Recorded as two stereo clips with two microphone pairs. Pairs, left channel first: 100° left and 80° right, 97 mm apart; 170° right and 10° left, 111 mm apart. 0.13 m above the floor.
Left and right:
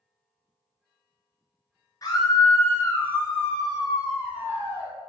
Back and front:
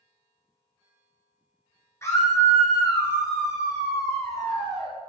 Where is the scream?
135° left, 1.6 m; by 4.9 s 120° right, 1.5 m.